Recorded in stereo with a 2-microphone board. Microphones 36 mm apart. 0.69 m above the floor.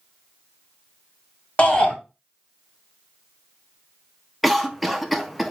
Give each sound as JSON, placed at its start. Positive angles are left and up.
{"t": 1.6, "sound": "a shout", "side_deg": 30, "distance_m": 1.4}
{"t": 4.4, "sound": "a cough", "side_deg": 0, "distance_m": 0.6}